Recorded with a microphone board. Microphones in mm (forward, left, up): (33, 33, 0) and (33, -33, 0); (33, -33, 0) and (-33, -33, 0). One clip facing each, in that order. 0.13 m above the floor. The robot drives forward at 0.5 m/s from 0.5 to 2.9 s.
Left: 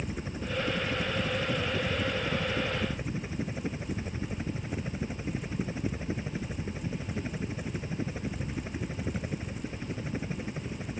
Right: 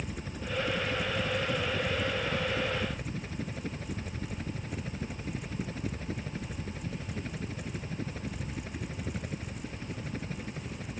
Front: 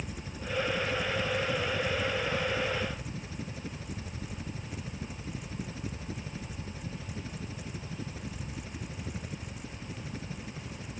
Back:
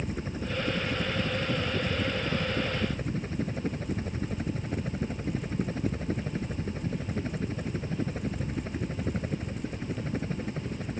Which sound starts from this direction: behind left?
A helicopter, at 0.0 s.